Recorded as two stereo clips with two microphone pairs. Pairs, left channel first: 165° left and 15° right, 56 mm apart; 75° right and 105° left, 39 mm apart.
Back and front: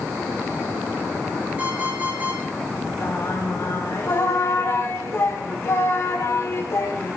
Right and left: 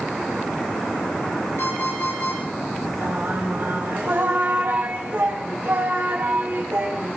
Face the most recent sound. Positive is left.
turn(degrees=125)